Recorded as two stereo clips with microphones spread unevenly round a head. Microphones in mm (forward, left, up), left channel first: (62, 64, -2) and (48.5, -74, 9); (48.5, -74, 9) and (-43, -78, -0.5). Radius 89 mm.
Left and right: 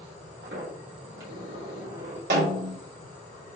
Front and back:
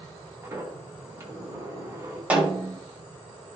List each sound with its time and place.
0.4 s a sliding door: 115° right, 4 m
2.3 s a snare drum: 105° right, 3.5 m